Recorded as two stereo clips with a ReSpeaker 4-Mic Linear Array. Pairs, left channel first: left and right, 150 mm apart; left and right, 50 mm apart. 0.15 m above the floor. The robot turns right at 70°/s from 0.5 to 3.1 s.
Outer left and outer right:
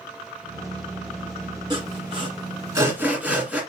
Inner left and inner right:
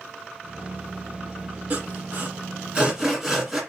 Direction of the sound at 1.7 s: 30° right (ahead or behind).